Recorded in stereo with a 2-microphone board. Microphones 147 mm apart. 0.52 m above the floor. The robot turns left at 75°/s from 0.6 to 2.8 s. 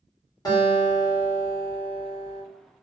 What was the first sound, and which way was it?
A guitar, 25° left (ahead or behind).